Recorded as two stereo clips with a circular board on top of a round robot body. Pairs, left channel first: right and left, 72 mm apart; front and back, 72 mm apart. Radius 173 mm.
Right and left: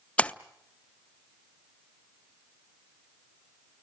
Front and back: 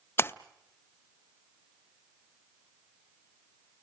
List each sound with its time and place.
0.2 s a splash: 25° right, 1.0 m